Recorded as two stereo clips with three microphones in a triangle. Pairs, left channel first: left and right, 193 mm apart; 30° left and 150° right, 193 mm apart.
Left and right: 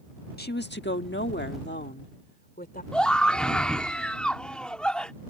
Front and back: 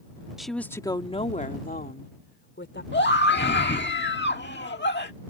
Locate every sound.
0.4 s a woman speaking: 120° left; by 2.8 s 50° left
2.9 s a scream: 5° left